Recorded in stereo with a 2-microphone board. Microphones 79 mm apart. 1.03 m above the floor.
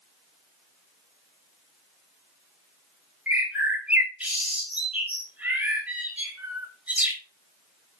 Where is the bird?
15° right (ahead or behind), 3 m.